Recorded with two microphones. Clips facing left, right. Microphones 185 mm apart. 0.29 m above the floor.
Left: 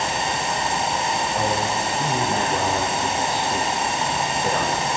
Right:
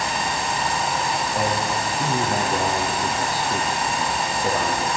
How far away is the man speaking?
About 6 m.